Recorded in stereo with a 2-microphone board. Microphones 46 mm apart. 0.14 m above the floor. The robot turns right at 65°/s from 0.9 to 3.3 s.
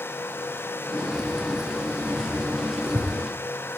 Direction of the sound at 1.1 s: 10° left (ahead or behind).